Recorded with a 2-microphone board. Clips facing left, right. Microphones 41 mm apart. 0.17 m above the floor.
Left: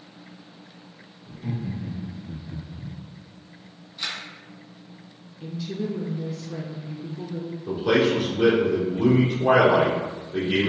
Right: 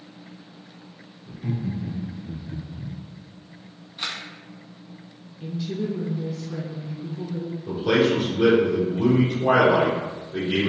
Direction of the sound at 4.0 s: 30° right (ahead or behind).